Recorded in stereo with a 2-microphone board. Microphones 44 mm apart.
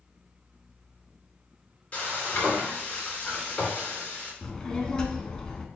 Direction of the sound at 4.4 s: 15° left (ahead or behind).